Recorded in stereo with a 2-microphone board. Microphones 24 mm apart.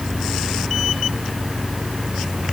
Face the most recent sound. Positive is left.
No sound to turn to.